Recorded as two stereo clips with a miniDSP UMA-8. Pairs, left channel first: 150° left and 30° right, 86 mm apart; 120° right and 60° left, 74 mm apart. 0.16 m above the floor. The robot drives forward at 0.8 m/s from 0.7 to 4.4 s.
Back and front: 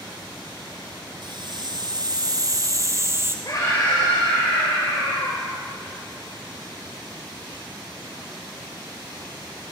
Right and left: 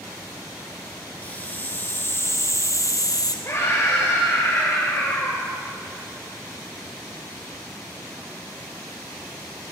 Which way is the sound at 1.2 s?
50° right.